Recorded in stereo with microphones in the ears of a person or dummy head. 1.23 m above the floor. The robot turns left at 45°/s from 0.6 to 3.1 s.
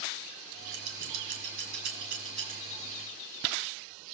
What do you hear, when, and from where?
0.7 s scissors: 65° right (ahead or behind), 2.5 m; by 2.5 s 25° right (ahead or behind), 2.5 m